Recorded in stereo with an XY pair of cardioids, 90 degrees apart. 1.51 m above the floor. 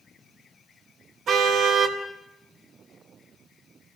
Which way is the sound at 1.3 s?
70° right.